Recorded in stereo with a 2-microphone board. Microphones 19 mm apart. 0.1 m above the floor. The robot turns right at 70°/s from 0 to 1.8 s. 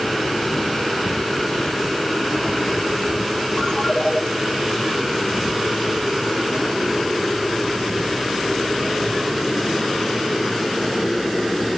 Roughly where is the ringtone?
Left.